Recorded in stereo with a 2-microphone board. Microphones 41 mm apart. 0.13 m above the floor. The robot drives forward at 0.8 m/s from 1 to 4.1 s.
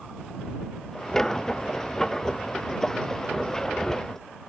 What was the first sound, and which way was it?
Only background noise.